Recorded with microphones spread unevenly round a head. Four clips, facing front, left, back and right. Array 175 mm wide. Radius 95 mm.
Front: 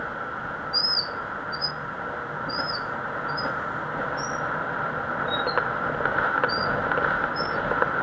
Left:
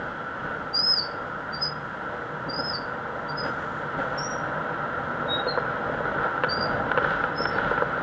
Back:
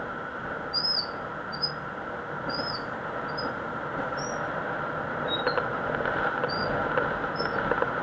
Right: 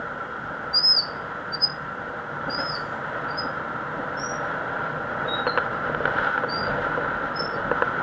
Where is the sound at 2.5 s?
160° right, 1.4 m.